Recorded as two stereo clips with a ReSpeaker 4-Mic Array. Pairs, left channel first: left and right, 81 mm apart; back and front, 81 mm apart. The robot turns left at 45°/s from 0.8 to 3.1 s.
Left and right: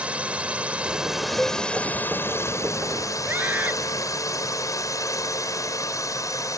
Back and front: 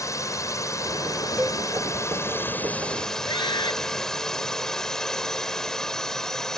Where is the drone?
160° right; by 6.6 s 100° left.